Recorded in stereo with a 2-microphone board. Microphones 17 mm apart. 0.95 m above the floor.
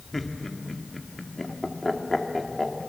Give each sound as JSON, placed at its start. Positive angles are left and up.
{"t": 0.1, "sound": "laughter", "side_deg": 20, "distance_m": 2.0}